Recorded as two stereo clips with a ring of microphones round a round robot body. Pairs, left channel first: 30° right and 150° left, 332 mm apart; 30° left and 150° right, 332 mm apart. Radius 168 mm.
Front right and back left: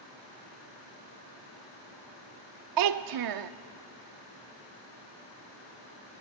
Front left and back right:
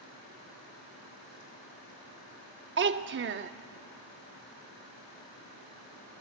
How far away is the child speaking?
About 0.7 m.